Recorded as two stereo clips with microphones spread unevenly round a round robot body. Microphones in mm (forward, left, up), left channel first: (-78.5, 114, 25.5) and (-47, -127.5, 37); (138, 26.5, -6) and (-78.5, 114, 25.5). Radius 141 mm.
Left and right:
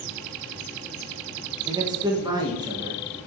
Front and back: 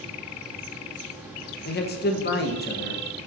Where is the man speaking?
10° right, 1.0 m.